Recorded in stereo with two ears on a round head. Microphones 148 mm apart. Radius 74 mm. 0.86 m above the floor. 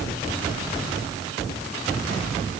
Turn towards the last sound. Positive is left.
No sound to turn to.